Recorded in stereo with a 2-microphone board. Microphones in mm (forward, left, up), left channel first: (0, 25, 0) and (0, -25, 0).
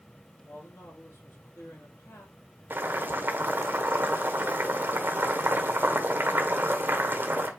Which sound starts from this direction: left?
A man speaking, at 0.4 s.